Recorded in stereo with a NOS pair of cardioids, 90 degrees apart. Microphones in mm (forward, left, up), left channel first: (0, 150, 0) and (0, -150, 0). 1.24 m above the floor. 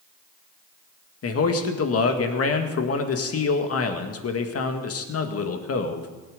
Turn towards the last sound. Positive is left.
turn(degrees=50)